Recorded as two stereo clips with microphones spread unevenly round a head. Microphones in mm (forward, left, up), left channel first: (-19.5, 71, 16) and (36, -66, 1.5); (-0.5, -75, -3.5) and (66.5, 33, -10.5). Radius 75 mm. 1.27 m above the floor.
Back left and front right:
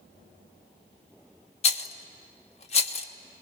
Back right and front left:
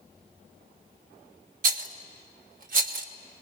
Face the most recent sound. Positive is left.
turn(degrees=65)